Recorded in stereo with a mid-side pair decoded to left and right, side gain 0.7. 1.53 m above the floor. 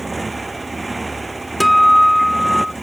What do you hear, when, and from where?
0.0 s a motorcycle: 10° right
1.6 s a guitar: straight ahead